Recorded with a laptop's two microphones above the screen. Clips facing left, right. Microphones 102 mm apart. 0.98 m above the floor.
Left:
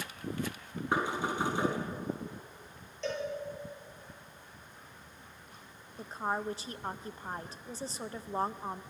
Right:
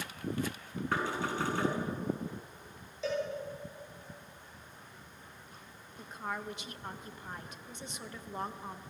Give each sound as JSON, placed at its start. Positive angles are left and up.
{"t": 0.9, "sound": "knocking", "side_deg": 20, "distance_m": 7.0}
{"t": 3.0, "sound": "a cowbell", "side_deg": -5, "distance_m": 8.5}
{"t": 6.0, "sound": "a woman speaking", "side_deg": 35, "distance_m": 0.8}